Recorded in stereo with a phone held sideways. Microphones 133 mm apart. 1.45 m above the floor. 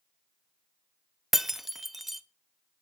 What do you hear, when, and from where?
1.3 s breaking glass: centre (ahead or behind), 0.5 m